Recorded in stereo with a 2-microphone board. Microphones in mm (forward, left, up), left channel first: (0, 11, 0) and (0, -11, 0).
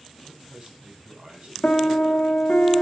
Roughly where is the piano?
Left.